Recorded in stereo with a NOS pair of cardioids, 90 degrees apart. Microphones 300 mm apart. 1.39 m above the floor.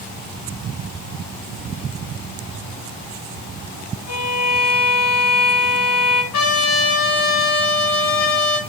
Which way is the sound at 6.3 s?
55° left.